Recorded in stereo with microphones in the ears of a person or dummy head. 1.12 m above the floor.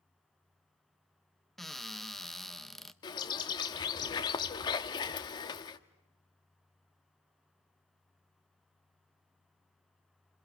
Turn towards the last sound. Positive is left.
turn(degrees=20)  # may be behind; listen again after turning